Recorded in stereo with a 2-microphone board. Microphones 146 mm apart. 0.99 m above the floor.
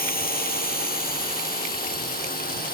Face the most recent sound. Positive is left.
turn(degrees=85)